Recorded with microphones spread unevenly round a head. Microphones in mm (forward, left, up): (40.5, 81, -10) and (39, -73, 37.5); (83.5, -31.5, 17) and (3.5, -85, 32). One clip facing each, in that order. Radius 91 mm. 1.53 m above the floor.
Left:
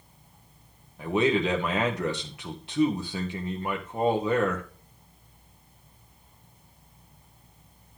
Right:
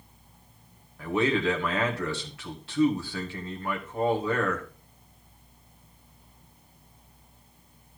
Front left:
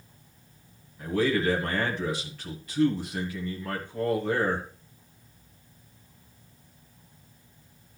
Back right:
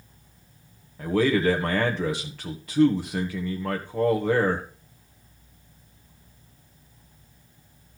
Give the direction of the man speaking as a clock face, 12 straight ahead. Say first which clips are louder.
Left 2 dB, back right 4 dB; 7 o'clock.